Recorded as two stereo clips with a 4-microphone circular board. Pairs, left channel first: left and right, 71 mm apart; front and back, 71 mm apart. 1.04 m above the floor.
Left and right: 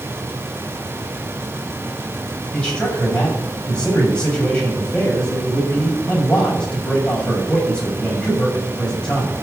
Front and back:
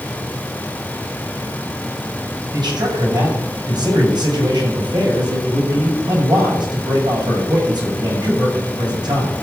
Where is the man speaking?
170° left, 6.5 m.